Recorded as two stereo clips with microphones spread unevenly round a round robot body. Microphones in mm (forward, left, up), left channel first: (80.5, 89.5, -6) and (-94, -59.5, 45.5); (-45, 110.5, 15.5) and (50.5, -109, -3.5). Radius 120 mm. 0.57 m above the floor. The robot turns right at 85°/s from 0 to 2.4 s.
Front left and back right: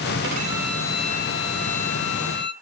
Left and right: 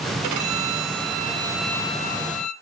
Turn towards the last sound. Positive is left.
turn(degrees=90)